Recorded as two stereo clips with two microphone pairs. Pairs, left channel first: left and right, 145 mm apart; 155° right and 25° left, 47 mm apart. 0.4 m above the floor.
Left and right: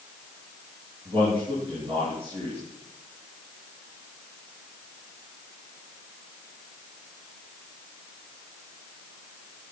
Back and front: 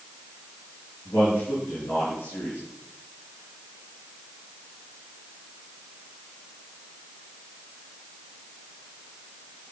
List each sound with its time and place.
1.1 s a man speaking: 135° right, 7.5 m